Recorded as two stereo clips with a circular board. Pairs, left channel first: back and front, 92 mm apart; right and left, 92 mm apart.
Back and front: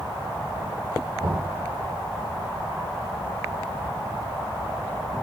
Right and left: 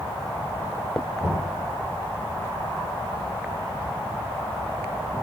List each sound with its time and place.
1.2 s knocking: 10° left, 5 m